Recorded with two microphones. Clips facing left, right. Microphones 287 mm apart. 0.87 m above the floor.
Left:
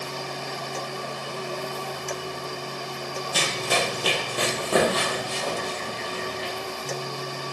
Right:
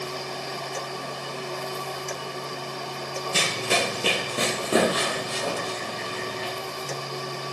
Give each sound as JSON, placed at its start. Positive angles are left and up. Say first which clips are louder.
{"t": 3.3, "sound": "running footsteps", "louder": "even", "side_deg": -35, "distance_m": 1.0}